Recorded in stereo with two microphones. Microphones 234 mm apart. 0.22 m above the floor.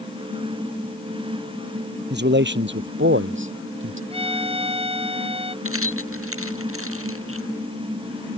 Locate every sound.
2.1 s a man speaking: 50° right (ahead or behind); by 4.0 s 60° right (ahead or behind)
4.1 s a violin: 25° right (ahead or behind)
5.7 s keys jangling: 70° right (ahead or behind)